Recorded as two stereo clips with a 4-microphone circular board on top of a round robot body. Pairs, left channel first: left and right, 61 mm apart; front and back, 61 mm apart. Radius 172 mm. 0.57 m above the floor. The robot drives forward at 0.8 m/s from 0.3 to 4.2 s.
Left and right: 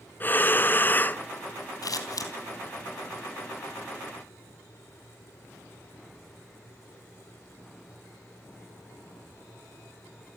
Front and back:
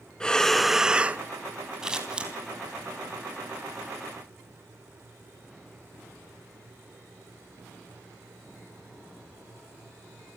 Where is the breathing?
65° left, 1.2 m; by 1.2 s 130° left, 1.2 m.